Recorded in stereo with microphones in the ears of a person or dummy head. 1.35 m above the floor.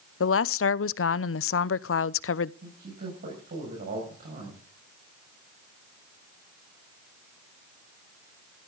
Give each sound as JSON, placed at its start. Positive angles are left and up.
{"t": 0.2, "sound": "a woman speaking", "side_deg": 65, "distance_m": 0.6}
{"t": 2.6, "sound": "a man speaking", "side_deg": -45, "distance_m": 6.0}